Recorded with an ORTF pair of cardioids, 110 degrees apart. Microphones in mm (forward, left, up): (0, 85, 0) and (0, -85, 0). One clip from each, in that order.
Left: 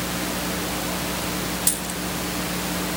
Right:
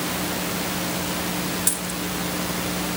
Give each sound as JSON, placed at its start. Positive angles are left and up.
{"t": 1.7, "sound": "a dropped coin", "azimuth_deg": 15, "distance_m": 2.5}